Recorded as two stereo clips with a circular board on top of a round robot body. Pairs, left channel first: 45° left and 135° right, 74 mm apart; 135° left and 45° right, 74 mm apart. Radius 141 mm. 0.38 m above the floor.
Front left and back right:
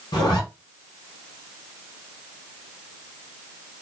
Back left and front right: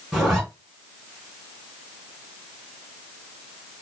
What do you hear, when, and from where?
0.1 s a zipper: 40° left, 1.0 m